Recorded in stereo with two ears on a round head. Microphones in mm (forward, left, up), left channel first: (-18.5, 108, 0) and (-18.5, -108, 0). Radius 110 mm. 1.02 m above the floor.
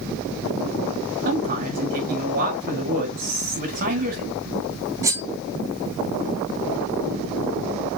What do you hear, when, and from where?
1.2 s a man speaking: 40° right (ahead or behind), 5.5 m
3.2 s whispering: 35° right (ahead or behind), 5.5 m
5.0 s cutlery clinking: 15° right (ahead or behind), 2.5 m